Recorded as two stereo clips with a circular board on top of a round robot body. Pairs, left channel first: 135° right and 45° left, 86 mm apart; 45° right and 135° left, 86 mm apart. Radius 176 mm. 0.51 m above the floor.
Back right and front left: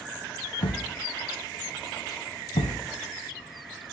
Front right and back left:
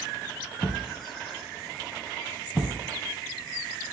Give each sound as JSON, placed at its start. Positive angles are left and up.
{"t": 0.6, "sound": "a thud", "azimuth_deg": -135, "distance_m": 1.0}